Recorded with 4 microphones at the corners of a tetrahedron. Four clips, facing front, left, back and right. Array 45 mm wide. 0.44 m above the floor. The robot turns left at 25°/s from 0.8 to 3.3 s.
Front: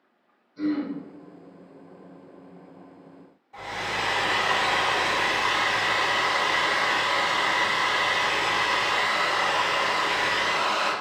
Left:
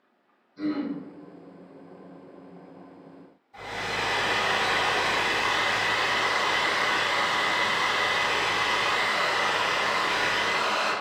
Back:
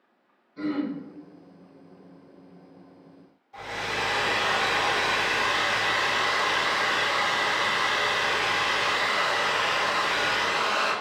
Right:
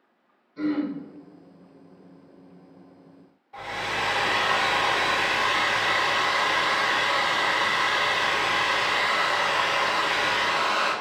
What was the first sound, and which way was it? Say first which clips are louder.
Throat clearing: right 3 dB, front 2 dB; 115° right.